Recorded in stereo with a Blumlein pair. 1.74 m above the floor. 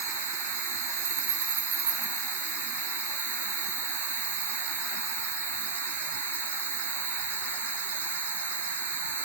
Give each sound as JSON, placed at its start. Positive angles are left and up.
{"t": 0.0, "sound": "an insect", "azimuth_deg": -65, "distance_m": 1.4}